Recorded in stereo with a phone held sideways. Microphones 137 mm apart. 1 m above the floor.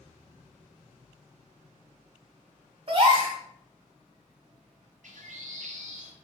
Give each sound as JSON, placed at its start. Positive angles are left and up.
{"t": 2.9, "sound": "a gasp", "side_deg": -40, "distance_m": 1.3}
{"t": 5.0, "sound": "a bird", "side_deg": -65, "distance_m": 0.8}